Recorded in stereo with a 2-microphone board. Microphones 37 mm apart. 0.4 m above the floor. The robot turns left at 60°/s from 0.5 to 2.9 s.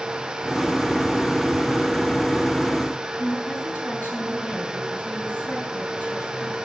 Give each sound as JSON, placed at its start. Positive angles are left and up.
{"t": 3.2, "sound": "a woman speaking", "side_deg": 60, "distance_m": 4.0}